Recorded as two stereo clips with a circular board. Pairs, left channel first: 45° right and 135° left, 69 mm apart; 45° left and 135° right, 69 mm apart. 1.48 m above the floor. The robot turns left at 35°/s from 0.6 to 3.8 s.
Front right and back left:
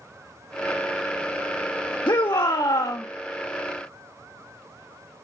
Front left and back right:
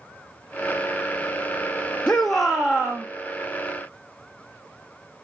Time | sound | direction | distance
2.1 | a shout | 35° right | 0.7 m